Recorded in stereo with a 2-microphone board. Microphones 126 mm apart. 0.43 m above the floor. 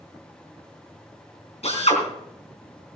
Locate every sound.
1.6 s a drill: 60° left (ahead or behind), 3.5 m